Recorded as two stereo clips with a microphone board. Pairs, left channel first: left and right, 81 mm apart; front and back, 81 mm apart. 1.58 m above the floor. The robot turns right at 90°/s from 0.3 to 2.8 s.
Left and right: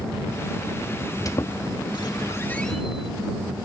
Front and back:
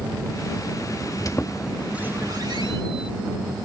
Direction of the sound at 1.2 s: 45° left.